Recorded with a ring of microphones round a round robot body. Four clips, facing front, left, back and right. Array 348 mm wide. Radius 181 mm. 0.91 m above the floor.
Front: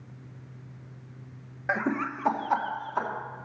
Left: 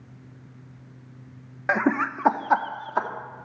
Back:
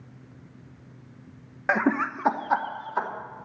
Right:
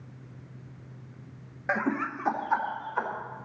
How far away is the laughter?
About 0.8 m.